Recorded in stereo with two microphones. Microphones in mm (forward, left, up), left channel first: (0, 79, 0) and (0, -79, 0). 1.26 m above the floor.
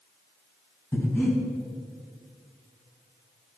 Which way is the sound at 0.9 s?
15° left (ahead or behind).